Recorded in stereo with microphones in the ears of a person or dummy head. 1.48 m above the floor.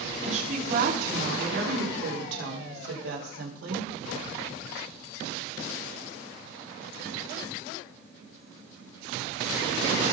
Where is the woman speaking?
45° right (ahead or behind), 3 m; by 3.9 s 85° right, 5 m.